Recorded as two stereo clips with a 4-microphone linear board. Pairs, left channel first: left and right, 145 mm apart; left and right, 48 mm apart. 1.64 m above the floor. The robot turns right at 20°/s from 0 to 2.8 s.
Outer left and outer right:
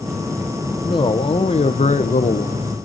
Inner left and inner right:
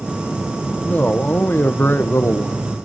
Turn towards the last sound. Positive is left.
turn(degrees=70)